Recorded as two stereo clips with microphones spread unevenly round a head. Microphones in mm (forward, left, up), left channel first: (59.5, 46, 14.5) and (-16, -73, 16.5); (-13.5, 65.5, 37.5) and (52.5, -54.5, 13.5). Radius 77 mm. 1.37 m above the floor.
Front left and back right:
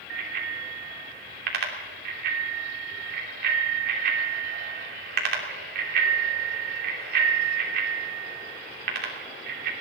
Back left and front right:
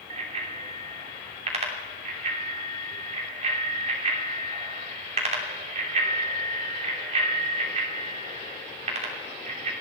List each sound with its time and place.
0.1 s a bicycle bell: 110° right, 3 m